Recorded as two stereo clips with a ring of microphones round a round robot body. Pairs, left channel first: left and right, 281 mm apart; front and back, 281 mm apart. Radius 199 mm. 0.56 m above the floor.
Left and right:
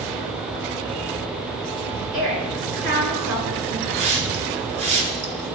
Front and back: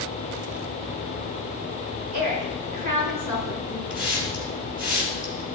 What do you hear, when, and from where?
2.1 s a woman speaking: 135° right, 5.5 m
3.9 s a hiss: 90° right, 2.5 m